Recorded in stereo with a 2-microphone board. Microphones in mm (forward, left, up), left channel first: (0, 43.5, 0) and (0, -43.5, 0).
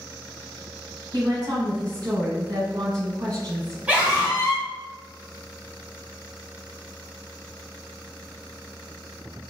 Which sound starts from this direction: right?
A woman speaking, at 1.1 s.